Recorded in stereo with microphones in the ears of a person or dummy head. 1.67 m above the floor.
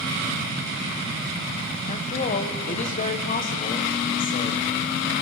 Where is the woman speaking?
40° left (ahead or behind), 1.5 m.